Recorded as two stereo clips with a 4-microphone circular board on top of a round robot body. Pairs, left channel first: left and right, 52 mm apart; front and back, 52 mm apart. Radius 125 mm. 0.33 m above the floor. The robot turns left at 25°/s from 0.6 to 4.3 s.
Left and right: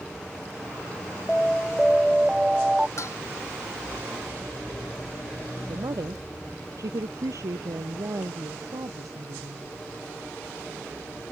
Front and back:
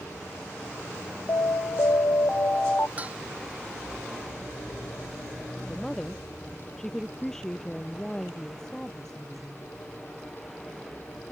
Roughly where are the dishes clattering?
Behind left.